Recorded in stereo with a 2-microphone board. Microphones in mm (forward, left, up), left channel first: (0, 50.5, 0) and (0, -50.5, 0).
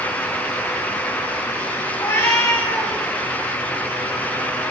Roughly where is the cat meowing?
Left.